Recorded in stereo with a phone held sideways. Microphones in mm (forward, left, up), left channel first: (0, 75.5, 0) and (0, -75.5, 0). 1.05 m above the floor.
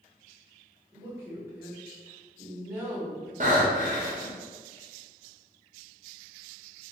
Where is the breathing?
55° right (ahead or behind), 0.7 m.